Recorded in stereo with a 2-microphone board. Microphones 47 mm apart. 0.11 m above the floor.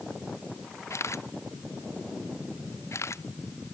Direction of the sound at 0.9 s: 90° left.